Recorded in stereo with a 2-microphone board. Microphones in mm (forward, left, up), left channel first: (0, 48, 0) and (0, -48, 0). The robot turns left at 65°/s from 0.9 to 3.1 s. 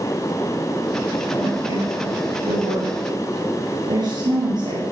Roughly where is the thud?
I don't hear a thud.